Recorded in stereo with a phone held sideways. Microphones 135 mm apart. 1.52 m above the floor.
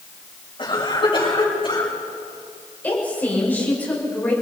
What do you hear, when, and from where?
0.6 s a cough: 35° left (ahead or behind), 9 m
2.8 s a woman speaking: 10° left (ahead or behind), 7 m